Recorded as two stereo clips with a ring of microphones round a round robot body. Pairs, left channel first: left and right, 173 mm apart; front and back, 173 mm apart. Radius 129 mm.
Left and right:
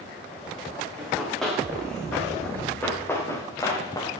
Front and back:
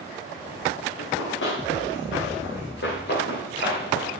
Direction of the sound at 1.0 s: Straight ahead.